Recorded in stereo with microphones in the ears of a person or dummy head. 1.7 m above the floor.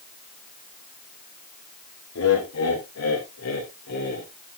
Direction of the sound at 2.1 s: 90° left.